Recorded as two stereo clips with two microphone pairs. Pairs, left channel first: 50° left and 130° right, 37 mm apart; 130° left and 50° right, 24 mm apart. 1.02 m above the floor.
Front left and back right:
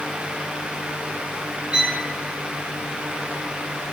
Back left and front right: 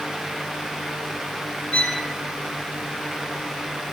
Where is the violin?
160° left, 3 m.